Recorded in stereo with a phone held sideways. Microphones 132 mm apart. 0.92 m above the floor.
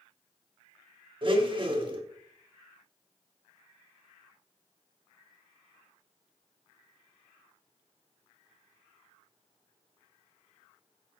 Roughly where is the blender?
Right.